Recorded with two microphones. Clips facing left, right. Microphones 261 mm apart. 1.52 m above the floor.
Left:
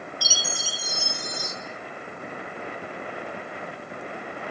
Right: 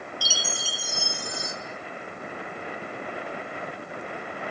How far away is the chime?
About 3 m.